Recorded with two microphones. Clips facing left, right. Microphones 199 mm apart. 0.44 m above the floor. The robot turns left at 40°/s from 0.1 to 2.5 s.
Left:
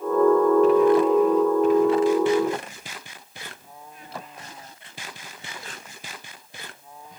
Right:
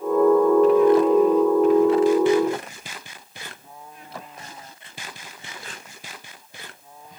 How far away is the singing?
I don't hear singing.